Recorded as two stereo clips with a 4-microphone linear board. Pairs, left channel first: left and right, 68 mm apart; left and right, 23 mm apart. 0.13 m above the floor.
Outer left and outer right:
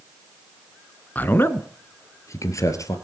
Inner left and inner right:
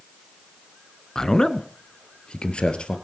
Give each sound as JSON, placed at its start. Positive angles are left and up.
{"t": 1.1, "sound": "a man speaking", "side_deg": 25, "distance_m": 1.2}